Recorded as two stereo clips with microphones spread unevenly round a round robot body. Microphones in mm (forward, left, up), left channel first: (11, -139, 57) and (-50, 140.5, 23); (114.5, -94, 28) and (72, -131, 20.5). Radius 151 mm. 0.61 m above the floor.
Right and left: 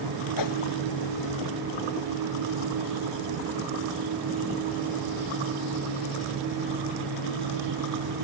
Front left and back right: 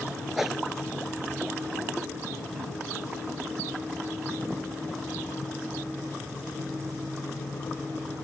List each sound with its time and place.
0.4 s a whoosh: 55° right